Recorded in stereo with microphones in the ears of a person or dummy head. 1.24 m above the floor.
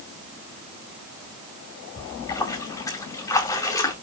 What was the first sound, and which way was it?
A splash, 10° left (ahead or behind).